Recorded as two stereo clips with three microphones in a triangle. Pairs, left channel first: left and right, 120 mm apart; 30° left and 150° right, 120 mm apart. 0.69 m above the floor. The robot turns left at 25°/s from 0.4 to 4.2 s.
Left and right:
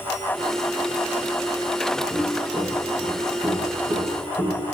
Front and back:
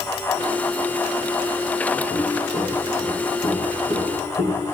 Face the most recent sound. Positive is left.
turn(degrees=-25)